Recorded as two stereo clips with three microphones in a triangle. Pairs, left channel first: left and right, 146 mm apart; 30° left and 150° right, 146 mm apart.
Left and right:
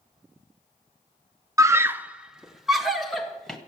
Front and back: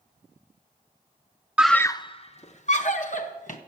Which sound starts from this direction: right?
A scream, at 1.6 s.